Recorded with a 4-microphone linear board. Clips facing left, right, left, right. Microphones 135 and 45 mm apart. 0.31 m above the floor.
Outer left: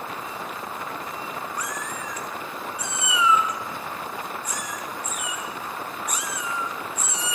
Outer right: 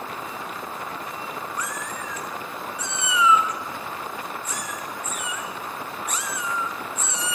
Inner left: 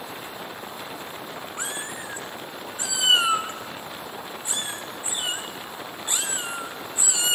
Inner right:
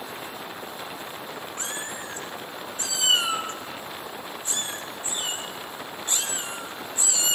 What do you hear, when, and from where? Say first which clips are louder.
1.6 s a cat meowing: even, inner left 2 dB; 15° left (ahead or behind), 2.5 m